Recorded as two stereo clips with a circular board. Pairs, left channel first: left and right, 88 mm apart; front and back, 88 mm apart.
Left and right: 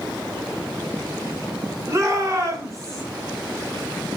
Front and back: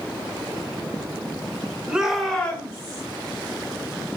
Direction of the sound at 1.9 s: 110° right.